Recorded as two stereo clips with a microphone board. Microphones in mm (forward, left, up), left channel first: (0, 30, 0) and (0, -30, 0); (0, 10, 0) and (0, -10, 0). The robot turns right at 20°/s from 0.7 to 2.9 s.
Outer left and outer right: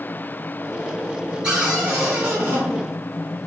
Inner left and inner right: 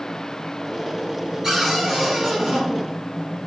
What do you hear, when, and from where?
1.4 s a cupboard door: 15° right (ahead or behind), 1.9 m; by 2.6 s 35° right (ahead or behind), 1.9 m